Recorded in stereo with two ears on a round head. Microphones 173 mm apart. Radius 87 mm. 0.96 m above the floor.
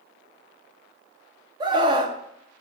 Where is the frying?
No frying in this recording.